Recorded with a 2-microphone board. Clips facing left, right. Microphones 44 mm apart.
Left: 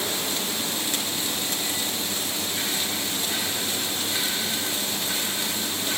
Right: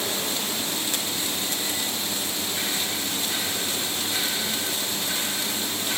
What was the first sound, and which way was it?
Only background noise.